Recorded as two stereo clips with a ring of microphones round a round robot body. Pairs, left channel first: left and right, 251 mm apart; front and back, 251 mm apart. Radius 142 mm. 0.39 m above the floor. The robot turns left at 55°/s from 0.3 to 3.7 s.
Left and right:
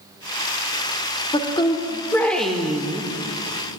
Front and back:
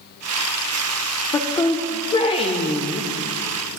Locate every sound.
1.3 s a woman speaking: 65° left, 0.8 m; by 3.1 s 30° right, 0.8 m